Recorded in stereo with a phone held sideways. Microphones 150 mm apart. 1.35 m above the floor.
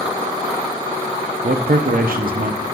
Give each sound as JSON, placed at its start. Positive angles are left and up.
{"t": 1.4, "sound": "a man speaking", "side_deg": -75, "distance_m": 0.6}